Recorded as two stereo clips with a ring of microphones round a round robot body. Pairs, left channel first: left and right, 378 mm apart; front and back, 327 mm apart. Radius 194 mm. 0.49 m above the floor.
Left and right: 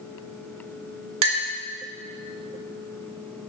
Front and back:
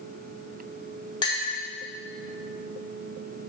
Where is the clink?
75° right, 0.7 m.